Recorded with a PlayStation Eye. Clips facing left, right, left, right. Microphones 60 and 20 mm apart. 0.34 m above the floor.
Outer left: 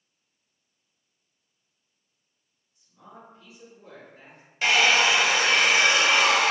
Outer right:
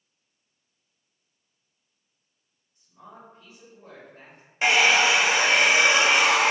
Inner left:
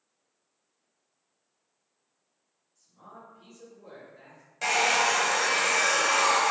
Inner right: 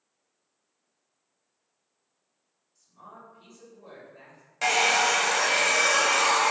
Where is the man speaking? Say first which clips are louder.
Outer right 1 dB, inner right 1 dB; 30° right (ahead or behind), 1.5 m.